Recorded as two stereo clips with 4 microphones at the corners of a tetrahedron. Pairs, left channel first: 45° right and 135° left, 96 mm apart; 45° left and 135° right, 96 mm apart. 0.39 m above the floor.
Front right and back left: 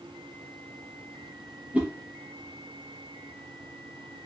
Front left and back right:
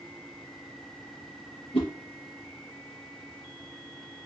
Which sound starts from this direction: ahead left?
A whoosh, at 1.7 s.